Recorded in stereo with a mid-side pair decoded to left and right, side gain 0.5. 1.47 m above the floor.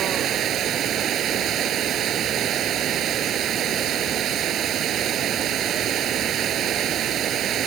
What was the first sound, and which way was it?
Running water, 60° right.